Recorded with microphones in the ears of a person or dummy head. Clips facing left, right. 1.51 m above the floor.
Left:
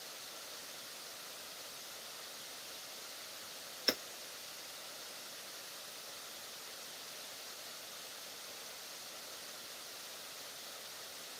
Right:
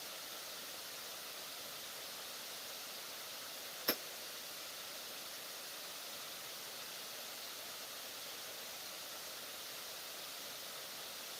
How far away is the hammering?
About 0.6 m.